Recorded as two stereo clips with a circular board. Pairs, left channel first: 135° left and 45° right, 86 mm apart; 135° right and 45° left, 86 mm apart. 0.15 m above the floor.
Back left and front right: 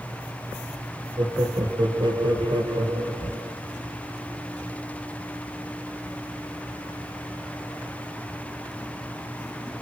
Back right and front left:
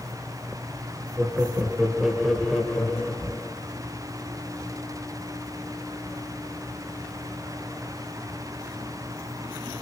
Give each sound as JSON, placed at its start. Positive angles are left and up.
{"t": 1.2, "sound": "laughter", "azimuth_deg": -20, "distance_m": 4.5}